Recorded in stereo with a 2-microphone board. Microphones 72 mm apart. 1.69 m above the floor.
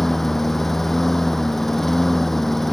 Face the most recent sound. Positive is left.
turn(degrees=5)  # may be behind; listen again after turning